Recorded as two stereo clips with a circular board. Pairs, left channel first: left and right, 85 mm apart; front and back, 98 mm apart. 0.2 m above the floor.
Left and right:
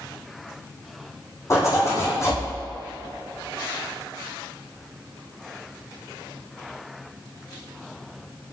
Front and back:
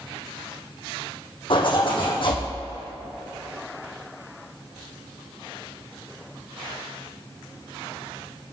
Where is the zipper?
35° left, 4 m.